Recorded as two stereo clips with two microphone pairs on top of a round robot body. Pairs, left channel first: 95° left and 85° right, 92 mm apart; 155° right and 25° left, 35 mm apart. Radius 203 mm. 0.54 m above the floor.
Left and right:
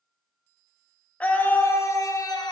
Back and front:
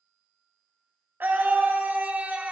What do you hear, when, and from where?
1.2 s a scream: 25° left, 1.9 m; by 2.5 s 70° left, 1.7 m